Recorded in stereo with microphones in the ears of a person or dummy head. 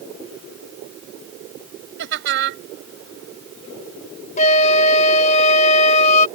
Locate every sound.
2.0 s laughter: 70° right (ahead or behind)
4.4 s a flute: 45° left (ahead or behind)